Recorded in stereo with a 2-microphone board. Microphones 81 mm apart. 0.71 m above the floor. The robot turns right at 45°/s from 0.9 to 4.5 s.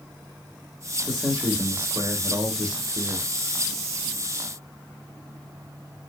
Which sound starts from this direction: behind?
A man speaking, at 1.1 s.